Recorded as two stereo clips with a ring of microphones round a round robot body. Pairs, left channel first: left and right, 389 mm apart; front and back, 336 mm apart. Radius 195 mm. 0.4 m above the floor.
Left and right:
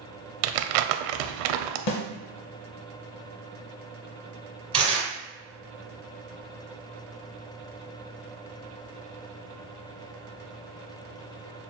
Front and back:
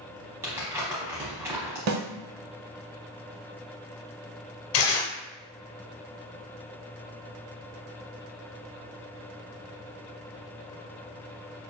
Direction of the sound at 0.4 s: 95° right.